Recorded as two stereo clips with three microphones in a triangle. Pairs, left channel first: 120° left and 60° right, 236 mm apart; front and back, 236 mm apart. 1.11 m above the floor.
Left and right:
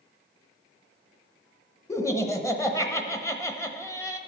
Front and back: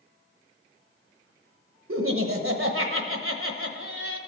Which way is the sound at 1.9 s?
160° right.